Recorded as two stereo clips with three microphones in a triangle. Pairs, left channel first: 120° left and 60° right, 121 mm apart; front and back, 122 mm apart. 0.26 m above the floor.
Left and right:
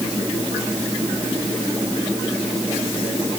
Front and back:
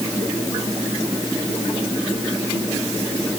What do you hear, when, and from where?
Only background noise.